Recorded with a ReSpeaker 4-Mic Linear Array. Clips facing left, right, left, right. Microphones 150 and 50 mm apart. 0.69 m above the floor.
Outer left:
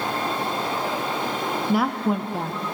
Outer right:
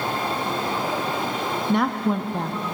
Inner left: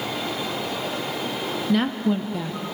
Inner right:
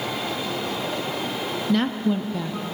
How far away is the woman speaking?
About 0.6 m.